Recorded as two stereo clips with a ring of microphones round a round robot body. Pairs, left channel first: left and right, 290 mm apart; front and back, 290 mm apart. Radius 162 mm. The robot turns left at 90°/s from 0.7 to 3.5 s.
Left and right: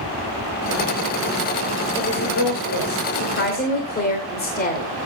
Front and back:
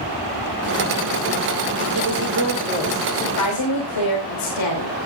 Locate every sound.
1.9 s a woman speaking: 170° left, 2.5 m; by 4.9 s 30° left, 2.5 m